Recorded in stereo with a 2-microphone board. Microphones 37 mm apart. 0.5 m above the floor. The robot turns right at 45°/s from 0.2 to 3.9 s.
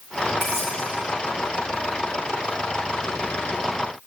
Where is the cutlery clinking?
50° left (ahead or behind), 7 m; by 0.7 s 65° left (ahead or behind), 7 m.